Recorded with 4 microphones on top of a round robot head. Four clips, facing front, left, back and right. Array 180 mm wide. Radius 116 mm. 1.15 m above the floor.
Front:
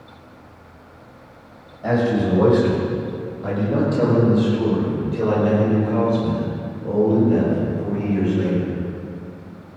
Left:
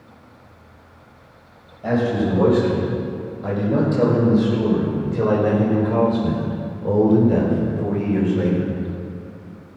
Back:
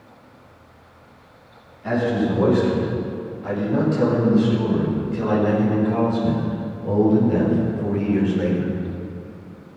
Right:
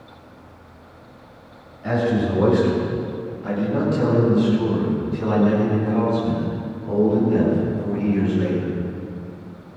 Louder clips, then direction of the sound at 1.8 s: Left 1 dB, front 2 dB; 40° left.